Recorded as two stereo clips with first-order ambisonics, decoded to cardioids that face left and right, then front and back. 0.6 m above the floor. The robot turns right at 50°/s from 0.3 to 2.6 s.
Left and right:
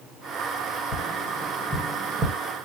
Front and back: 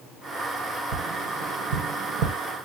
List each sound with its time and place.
0.9 s tapping: 145° left, 0.8 m; by 2.3 s 145° right, 0.8 m